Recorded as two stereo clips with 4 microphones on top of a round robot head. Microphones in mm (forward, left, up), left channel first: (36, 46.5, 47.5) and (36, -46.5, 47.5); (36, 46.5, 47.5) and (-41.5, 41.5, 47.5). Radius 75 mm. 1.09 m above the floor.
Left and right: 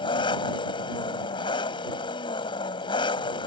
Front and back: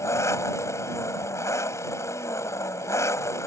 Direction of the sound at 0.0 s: 55° left.